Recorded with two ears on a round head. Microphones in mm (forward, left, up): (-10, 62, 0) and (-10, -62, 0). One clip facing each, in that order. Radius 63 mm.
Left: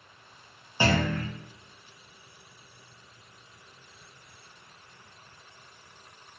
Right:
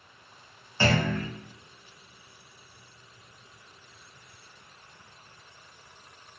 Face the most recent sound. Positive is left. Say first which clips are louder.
# even
turn(degrees=15)  # may be behind; listen again after turning